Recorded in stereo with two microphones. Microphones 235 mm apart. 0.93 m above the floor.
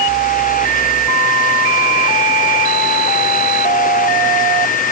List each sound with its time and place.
Only background noise.